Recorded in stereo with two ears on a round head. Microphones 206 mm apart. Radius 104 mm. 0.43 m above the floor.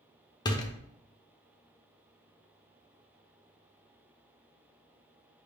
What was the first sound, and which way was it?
A door slam, 20° left (ahead or behind).